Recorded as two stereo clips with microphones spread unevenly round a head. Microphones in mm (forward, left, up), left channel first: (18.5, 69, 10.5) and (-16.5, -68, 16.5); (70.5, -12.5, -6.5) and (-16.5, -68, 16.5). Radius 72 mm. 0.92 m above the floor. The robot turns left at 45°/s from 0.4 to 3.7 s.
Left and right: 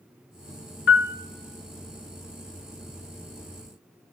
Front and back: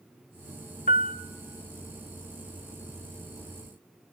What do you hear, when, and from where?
0.9 s a piano: 80° left, 0.5 m; by 1.1 s 65° left, 0.5 m